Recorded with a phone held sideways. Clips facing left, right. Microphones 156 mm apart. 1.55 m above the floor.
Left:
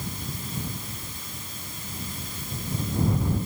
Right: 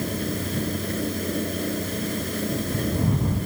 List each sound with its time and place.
0.0 s a fan: 75° right (ahead or behind)